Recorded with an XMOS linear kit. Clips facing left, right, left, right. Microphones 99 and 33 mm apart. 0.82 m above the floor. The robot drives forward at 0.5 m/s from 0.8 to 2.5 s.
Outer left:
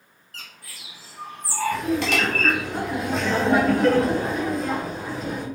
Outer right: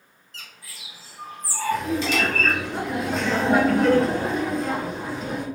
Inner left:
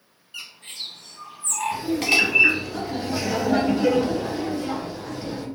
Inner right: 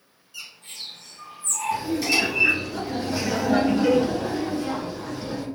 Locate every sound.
0.3 s a bird: 55° left (ahead or behind), 1.2 m
1.7 s laughter: centre (ahead or behind), 1.2 m